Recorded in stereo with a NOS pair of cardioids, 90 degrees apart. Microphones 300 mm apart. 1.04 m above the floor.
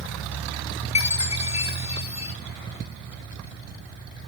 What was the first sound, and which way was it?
A chime, 20° left.